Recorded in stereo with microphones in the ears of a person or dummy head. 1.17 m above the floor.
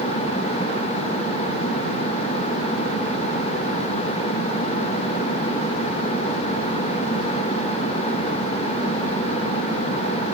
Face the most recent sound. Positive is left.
No sound to turn to.